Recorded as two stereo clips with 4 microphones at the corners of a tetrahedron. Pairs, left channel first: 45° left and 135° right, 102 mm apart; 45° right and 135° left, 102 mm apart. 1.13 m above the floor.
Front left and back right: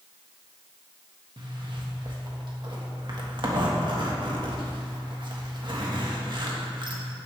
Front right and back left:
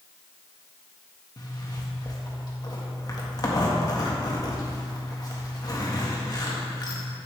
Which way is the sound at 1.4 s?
95° right.